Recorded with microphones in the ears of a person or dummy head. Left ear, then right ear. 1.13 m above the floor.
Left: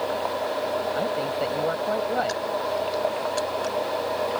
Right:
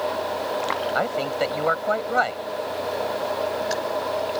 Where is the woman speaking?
55° right (ahead or behind).